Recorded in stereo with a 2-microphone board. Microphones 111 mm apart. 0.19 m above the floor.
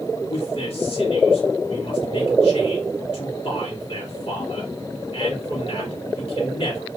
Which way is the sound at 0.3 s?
55° left (ahead or behind).